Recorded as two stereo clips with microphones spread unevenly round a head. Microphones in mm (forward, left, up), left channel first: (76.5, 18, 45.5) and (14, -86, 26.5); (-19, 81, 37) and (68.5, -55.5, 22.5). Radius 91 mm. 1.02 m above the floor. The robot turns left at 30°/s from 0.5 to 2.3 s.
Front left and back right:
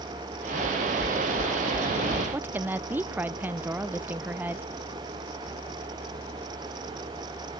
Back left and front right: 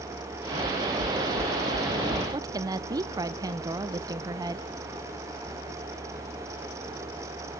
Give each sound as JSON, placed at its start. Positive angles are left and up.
{"t": 0.6, "sound": "knocking", "azimuth_deg": 5, "distance_m": 1.4}
{"t": 2.3, "sound": "a woman speaking", "azimuth_deg": -85, "distance_m": 0.7}